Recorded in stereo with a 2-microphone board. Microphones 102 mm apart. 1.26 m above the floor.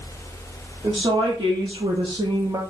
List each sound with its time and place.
0.8 s a woman speaking: 65° right (ahead or behind), 1.2 m; by 2.6 s 30° right (ahead or behind), 0.6 m